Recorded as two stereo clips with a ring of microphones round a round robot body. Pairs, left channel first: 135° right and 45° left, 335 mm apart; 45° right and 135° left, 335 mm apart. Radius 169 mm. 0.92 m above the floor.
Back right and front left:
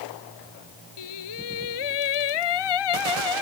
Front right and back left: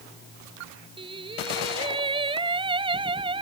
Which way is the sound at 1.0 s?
150° right.